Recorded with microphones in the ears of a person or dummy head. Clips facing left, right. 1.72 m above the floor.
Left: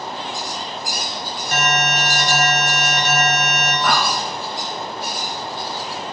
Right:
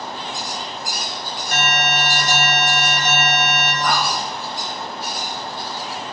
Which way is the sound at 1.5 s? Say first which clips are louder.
Left 1 dB; 70° left (ahead or behind).